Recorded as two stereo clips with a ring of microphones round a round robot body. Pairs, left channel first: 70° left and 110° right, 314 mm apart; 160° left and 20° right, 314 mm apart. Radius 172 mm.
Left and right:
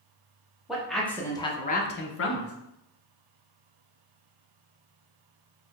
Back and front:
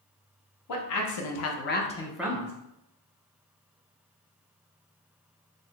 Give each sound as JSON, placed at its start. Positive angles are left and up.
{"t": 0.7, "sound": "a man speaking", "azimuth_deg": 160, "distance_m": 1.0}